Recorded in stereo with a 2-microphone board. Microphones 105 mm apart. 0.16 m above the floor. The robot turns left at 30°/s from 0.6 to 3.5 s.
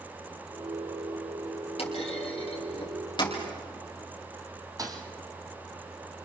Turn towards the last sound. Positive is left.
turn(degrees=-40)  # may be behind; listen again after turning